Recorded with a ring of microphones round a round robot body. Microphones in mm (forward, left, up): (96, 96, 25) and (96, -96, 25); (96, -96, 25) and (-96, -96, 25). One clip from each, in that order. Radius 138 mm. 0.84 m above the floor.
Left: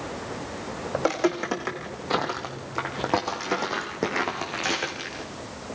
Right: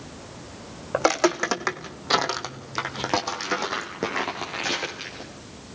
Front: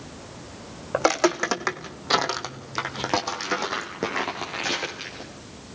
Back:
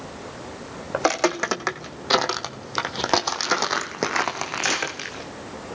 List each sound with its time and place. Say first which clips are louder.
0.9 s footsteps: right 4 dB, even; 90° right, 3.5 m; by 5.3 s 165° left, 4.5 m